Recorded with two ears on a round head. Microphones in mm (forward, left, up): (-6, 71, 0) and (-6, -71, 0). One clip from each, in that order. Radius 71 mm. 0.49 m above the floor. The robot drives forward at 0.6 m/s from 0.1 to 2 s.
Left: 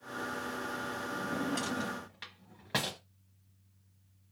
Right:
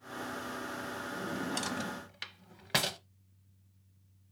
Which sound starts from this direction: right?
A drawer, at 1.1 s.